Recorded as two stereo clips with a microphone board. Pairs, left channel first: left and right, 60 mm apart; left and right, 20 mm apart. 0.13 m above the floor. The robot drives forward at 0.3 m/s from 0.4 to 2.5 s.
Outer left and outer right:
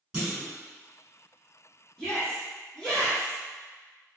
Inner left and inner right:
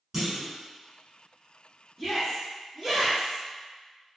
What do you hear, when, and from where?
0.1 s a clunk: 15° right (ahead or behind), 1.2 m
2.0 s a shout: 10° left (ahead or behind), 1.3 m